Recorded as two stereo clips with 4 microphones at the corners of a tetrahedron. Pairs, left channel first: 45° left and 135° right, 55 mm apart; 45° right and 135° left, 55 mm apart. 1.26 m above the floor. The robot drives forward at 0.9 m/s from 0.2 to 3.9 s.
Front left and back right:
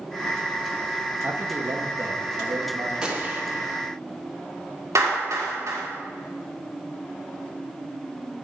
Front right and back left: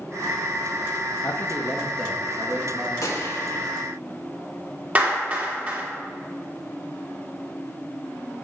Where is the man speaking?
85° right, 0.7 m; by 2.9 s 155° right, 1.6 m.